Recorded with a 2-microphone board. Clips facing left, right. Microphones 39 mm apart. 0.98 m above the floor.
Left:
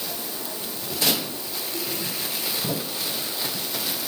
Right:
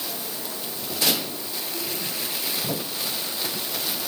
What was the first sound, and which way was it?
Only background noise.